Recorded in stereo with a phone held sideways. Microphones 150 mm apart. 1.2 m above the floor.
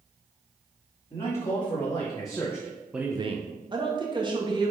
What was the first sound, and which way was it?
A man speaking, 35° left (ahead or behind).